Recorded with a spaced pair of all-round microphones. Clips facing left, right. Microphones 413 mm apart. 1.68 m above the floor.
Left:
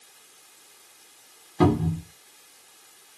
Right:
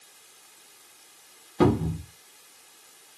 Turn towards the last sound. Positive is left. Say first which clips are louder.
# left 1 dB
turn(degrees=10)  # may be behind; listen again after turning